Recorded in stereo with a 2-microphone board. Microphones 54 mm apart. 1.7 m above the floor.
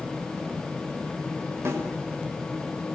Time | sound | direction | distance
1.6 | a snare drum | 55° right (ahead or behind) | 6 m